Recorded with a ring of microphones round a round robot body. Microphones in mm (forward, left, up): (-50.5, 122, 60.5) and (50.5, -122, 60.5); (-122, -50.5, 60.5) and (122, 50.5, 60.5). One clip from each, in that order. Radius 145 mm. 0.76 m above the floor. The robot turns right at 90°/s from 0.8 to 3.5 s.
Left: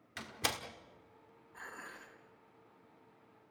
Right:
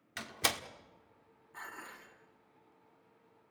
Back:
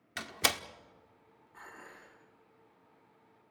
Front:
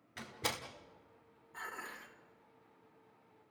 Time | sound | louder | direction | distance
0.2 | a door slam | right 3 dB, back 8 dB | 140° right | 1.4 m
1.5 | dishes clattering | right 1 dB, front 5 dB | 45° right | 4.5 m